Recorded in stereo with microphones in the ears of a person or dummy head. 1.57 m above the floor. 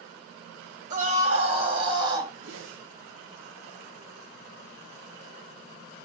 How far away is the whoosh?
About 1.2 m.